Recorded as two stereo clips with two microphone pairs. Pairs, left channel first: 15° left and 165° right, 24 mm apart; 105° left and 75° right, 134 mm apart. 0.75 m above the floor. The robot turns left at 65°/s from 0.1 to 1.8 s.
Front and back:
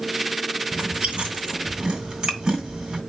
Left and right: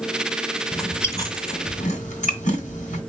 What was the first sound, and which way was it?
Chewing, 160° right.